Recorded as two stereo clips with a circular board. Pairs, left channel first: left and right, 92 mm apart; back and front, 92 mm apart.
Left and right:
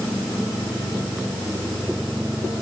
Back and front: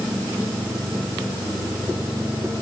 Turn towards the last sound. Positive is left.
No sound to turn to.